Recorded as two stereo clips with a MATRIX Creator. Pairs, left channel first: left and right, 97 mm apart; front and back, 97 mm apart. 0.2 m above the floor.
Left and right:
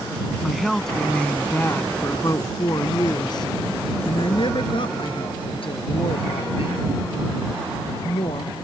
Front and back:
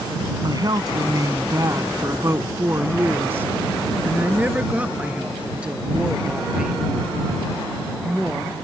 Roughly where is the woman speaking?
Behind.